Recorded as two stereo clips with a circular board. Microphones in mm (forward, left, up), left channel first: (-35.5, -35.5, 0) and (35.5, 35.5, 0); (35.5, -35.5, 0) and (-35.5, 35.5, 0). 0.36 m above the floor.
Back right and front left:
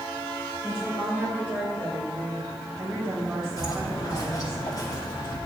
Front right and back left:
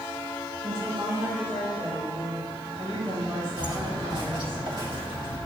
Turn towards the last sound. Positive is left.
turn(degrees=170)